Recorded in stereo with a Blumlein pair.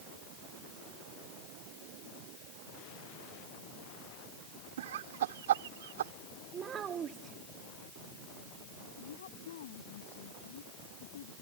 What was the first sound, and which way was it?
Laughter, 60° right.